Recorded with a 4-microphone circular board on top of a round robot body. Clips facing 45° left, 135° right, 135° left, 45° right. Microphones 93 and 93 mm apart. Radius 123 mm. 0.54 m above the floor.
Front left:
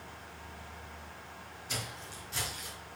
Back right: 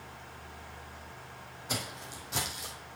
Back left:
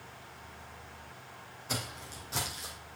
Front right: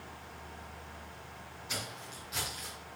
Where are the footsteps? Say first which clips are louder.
Back right 4 dB, back left 3 dB; 175° right, 1.8 m; by 2.8 s 160° right, 2 m.